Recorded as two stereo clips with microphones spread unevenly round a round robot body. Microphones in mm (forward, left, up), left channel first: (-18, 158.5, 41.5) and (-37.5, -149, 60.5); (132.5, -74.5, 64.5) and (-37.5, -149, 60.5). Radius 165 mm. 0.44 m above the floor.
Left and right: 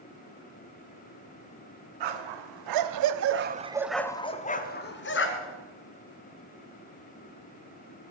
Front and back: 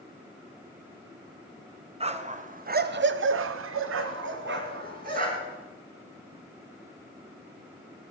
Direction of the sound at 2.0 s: 95° right.